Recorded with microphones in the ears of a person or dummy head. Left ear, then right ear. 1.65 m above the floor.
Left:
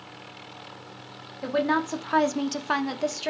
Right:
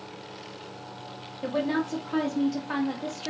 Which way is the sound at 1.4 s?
40° left (ahead or behind).